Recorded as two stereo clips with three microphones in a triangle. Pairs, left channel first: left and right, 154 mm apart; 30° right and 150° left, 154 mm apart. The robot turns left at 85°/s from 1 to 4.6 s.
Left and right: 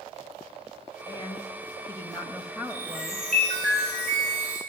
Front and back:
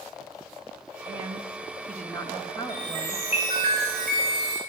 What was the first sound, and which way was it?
A woman speaking, 120° left.